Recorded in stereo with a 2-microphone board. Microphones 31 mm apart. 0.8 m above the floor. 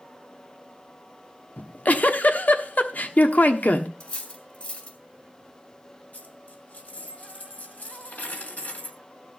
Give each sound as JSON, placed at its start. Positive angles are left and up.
{"t": 1.6, "sound": "a giggle", "side_deg": 65, "distance_m": 1.1}
{"t": 4.0, "sound": "cutlery clinking", "side_deg": 40, "distance_m": 2.5}
{"t": 6.1, "sound": "a dropped coin", "side_deg": 55, "distance_m": 2.0}